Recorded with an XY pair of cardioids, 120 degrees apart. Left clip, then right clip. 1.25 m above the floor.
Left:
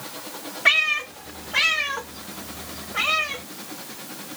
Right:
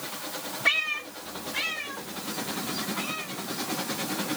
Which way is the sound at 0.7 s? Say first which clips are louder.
Left 7 dB; 35° left.